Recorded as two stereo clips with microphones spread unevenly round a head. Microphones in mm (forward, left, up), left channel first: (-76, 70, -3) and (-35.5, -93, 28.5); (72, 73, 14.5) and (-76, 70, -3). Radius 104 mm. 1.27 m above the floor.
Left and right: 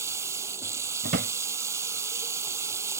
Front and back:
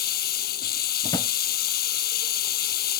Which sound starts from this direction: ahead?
Running water, at 0.0 s.